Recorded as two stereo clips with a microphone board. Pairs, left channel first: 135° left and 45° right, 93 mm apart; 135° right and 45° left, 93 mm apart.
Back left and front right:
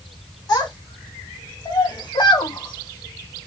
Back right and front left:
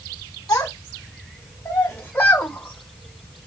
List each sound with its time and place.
0.5 s a child speaking: 175° left, 3 m; by 3.5 s 145° left, 1.4 m